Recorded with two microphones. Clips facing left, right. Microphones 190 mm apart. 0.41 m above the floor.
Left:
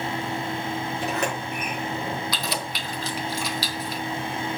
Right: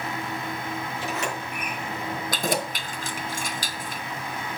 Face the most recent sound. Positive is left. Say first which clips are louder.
# right 4 dB
turn(degrees=-50)  # may be behind; listen again after turning